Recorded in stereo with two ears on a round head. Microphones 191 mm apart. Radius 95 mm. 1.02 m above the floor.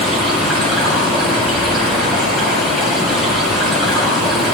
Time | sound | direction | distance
0.0 | running water | centre (ahead or behind) | 5.5 m